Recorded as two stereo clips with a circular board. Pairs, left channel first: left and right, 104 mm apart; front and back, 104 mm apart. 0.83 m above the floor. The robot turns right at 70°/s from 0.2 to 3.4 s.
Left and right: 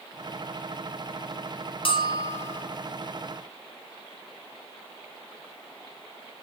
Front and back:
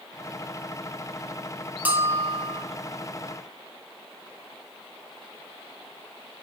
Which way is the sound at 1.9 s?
105° left.